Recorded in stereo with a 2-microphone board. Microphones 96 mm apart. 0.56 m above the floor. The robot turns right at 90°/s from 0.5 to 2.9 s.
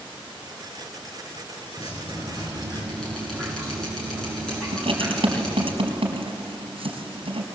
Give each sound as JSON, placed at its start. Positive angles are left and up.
{"t": 1.8, "sound": "dripping", "azimuth_deg": 70, "distance_m": 6.5}
{"t": 4.7, "sound": "writing", "side_deg": -70, "distance_m": 4.0}